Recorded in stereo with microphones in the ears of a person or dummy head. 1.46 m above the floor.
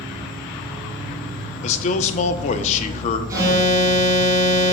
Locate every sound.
0.0 s an insect: centre (ahead or behind), 3 m
1.6 s a man speaking: 40° left (ahead or behind), 0.9 m
3.3 s an alarm: 20° right (ahead or behind), 3.5 m